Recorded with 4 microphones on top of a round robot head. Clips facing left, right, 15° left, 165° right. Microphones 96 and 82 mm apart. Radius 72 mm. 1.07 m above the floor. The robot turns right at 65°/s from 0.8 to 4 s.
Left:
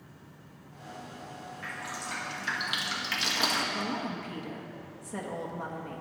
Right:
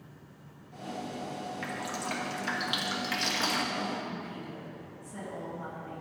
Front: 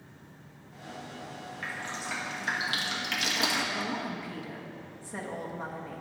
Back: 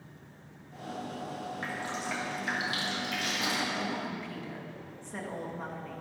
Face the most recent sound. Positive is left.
turn(degrees=95)